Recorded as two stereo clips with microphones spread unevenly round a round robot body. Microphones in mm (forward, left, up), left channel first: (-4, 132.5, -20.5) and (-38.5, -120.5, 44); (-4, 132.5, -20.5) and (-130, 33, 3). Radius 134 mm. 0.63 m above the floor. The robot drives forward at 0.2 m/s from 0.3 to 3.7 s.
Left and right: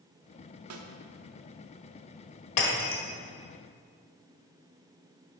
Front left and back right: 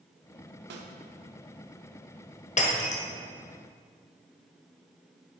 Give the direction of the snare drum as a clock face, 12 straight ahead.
5 o'clock.